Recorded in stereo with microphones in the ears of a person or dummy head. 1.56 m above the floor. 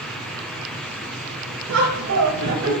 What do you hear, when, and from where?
1.7 s laughter: 85° right, 2 m; by 2.7 s 70° right (ahead or behind), 2.5 m